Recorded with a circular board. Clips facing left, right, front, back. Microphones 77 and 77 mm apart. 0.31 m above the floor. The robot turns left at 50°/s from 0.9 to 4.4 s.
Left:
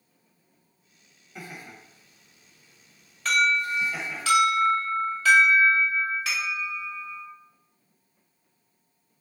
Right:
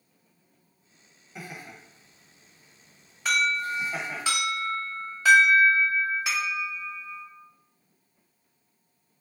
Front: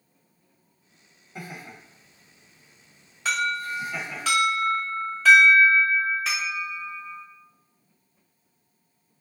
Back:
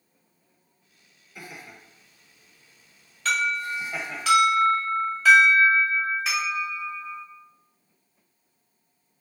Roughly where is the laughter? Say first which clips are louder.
Even, front 3 dB; ahead.